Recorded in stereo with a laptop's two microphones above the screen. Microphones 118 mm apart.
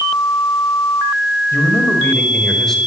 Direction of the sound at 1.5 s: 20° left (ahead or behind).